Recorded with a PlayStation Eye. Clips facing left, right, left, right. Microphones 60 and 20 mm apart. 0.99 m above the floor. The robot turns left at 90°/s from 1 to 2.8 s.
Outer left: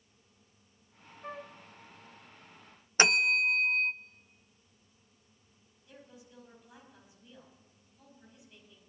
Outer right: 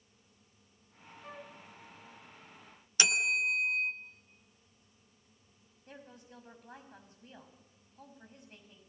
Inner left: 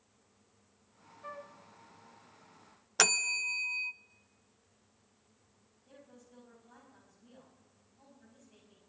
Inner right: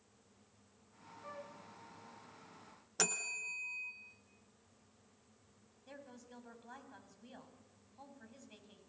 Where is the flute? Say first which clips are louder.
Outer left 5 dB, inner left 4 dB; 40° left (ahead or behind), 1.9 m; by 1.6 s 15° left (ahead or behind), 1.9 m.